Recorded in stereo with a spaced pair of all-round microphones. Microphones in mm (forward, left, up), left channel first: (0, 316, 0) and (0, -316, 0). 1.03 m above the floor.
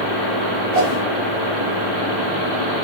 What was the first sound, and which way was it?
A whoosh, 70° right (ahead or behind).